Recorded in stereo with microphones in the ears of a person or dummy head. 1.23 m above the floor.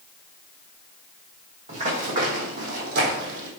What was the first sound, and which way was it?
Running footsteps, 40° right (ahead or behind).